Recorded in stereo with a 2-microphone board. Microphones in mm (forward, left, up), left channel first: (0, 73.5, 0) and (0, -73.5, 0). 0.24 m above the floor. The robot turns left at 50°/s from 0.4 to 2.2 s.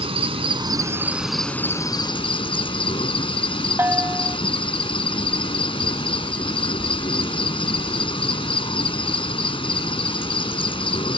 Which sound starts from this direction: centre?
A bell, at 3.8 s.